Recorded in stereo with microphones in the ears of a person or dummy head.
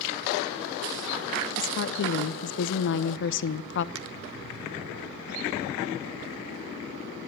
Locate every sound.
1.6 s a woman speaking: 65° left (ahead or behind), 1.1 m
4.0 s a finger snap: 85° right, 1.9 m